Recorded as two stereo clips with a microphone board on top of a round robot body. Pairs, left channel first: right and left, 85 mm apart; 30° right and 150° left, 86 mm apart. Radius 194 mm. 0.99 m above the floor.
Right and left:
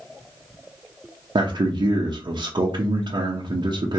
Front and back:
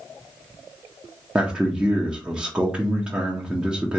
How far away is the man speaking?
About 1.0 m.